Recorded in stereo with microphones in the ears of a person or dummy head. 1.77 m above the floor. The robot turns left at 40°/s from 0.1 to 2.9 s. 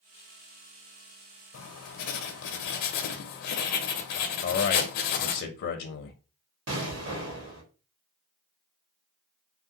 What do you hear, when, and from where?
1.5 s writing: 125° left, 0.5 m; by 5.4 s 75° left, 0.5 m
4.4 s a man speaking: 60° left (ahead or behind), 0.5 m
6.7 s an explosion: 75° right (ahead or behind), 1.5 m